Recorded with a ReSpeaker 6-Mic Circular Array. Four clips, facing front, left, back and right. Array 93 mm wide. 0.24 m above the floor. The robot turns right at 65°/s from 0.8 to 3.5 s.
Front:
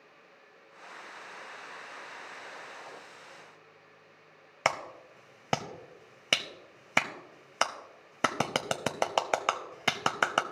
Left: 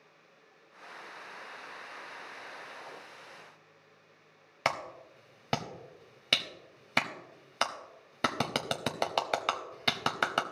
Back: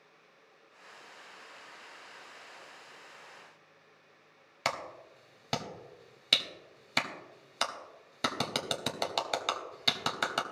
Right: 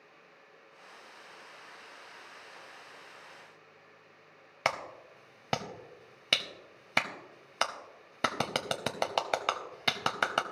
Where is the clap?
5° right, 0.7 m.